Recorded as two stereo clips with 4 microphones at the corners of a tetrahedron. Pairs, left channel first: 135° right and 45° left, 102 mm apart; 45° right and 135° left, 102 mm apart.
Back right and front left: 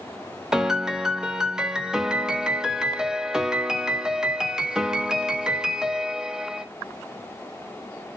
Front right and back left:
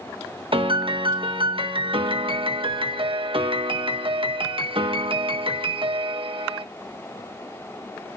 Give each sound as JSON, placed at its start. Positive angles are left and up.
{"t": 0.5, "sound": "a piano", "azimuth_deg": 125, "distance_m": 1.1}